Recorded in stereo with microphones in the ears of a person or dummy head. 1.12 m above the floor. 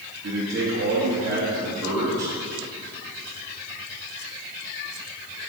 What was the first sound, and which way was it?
A man speaking, 75° right (ahead or behind).